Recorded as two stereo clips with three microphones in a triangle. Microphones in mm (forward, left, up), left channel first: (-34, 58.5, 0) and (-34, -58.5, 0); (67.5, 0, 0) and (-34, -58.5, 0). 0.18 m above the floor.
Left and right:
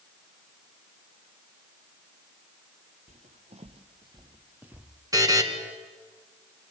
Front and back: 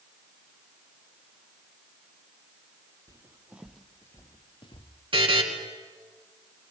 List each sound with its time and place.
3.1 s footsteps: 90° right, 1.5 m; by 4.9 s 10° right, 1.7 m
5.1 s a buzzer: 140° right, 2.5 m